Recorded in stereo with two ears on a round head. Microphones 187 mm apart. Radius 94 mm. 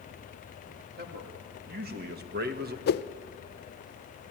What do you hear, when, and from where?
1.0 s a man speaking: 50° right (ahead or behind), 3 m; by 2.8 s 45° right (ahead or behind), 1.2 m
2.9 s a whoosh: 50° left (ahead or behind), 0.6 m